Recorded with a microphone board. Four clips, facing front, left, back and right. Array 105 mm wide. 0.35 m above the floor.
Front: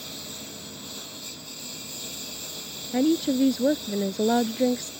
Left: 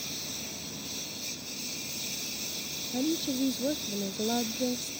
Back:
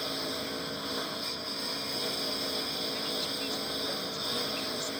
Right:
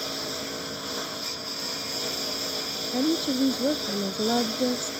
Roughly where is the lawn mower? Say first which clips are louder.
Right 10 dB, back 6 dB; behind right.